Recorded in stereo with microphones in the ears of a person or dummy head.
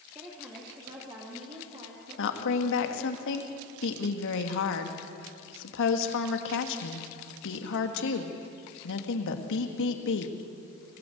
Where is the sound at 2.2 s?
65° left (ahead or behind), 2 m.